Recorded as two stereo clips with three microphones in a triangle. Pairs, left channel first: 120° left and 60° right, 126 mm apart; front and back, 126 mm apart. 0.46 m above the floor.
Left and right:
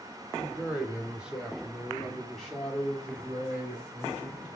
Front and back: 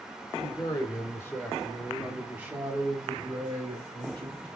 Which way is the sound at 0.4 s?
15° left.